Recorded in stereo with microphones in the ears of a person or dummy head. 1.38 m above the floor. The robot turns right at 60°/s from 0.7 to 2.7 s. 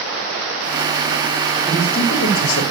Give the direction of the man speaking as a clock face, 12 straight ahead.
11 o'clock.